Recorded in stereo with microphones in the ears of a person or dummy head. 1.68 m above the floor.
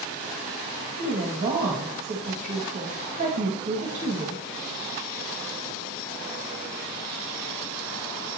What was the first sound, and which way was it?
A woman speaking, 40° right (ahead or behind).